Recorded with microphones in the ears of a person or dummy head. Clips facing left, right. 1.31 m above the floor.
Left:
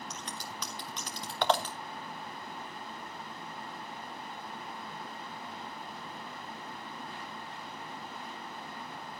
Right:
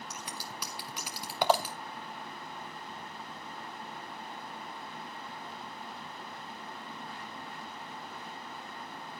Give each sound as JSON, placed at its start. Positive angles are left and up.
{"t": 0.1, "sound": "scissors", "side_deg": -10, "distance_m": 0.6}